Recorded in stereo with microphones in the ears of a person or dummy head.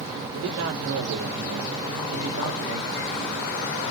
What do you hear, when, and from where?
0.3 s a man speaking: 75° right (ahead or behind), 2 m